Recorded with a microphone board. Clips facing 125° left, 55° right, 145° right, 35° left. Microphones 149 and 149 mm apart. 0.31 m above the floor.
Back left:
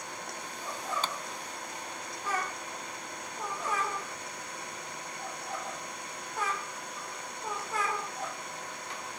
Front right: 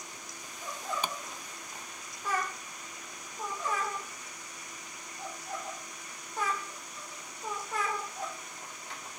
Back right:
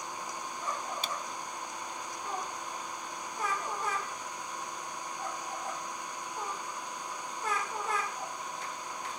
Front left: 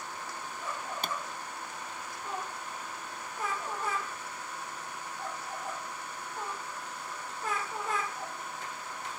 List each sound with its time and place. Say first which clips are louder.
0.0 s an engine running: back left 7 dB, back right 1 dB; 140° left
1.0 s a pop: even, front left 2 dB; 20° left